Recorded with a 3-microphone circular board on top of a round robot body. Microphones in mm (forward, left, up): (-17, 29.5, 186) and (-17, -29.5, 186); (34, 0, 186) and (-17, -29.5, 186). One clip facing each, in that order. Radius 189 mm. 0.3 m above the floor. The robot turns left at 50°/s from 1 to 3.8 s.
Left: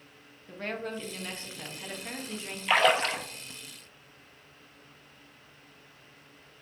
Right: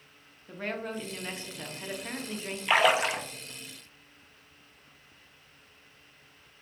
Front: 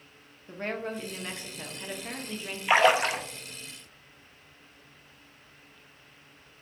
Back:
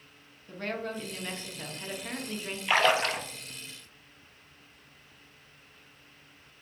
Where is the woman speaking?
15° right, 1.0 m; by 2.6 s 90° right, 1.0 m.